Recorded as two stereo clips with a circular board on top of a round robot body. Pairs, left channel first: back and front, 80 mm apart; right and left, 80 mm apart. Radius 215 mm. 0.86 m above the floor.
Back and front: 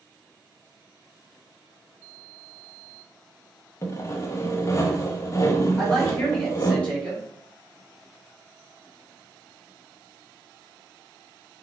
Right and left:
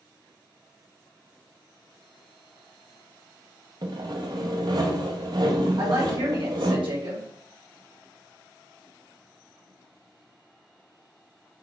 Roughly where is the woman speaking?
Left.